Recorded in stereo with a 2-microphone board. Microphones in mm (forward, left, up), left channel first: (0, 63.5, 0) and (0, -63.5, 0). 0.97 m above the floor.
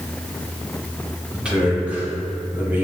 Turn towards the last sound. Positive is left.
turn(degrees=-15)  # may be behind; listen again after turning